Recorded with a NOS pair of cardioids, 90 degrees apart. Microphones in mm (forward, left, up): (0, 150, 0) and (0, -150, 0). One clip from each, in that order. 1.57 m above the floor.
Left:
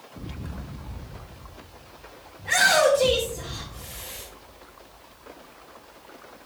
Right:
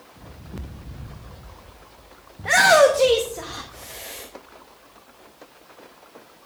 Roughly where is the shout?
Ahead right.